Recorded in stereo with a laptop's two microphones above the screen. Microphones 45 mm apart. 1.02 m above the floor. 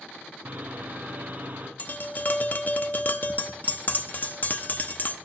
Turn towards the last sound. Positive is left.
turn(degrees=40)  # may be behind; listen again after turning